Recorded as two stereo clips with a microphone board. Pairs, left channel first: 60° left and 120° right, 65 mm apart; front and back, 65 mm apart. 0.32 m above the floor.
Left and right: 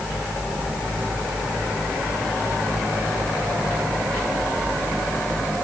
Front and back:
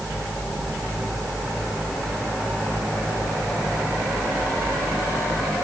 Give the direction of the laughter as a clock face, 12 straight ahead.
No laughter in this recording.